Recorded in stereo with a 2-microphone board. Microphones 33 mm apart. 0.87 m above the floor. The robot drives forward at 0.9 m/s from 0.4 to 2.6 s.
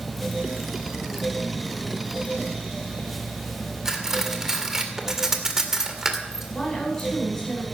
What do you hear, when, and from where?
3.9 s cutlery clinking: 10° right (ahead or behind), 1.9 m
6.5 s a woman speaking: 20° left (ahead or behind), 8 m